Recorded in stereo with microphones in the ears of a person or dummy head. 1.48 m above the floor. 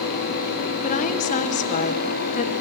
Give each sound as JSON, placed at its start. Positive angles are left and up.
{"t": 0.8, "sound": "a woman speaking", "side_deg": 40, "distance_m": 1.2}